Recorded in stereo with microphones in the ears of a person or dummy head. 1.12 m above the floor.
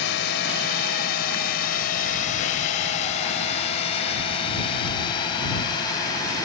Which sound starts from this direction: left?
A drone, at 0.0 s.